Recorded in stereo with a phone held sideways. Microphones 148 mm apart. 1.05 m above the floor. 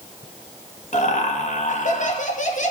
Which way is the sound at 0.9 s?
55° left (ahead or behind).